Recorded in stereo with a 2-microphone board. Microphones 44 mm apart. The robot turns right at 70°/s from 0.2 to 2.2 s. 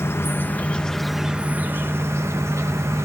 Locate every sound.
0.0 s an insect: 120° left, 0.8 m; by 3.1 s 100° right, 0.8 m